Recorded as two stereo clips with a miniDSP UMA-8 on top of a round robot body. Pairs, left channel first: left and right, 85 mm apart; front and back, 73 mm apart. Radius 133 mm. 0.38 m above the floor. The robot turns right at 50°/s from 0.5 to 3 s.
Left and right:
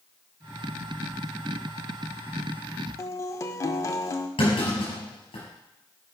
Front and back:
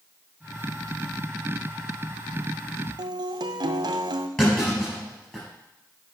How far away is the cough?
I don't hear a cough.